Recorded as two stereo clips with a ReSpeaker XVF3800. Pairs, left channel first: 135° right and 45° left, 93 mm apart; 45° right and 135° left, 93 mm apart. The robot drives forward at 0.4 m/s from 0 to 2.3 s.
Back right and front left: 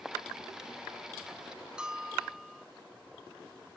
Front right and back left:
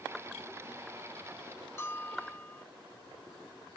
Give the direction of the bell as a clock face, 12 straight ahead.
1 o'clock.